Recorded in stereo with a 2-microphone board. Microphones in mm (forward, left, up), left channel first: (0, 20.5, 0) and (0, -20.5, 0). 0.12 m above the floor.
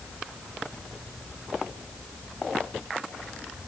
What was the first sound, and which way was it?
Only background noise.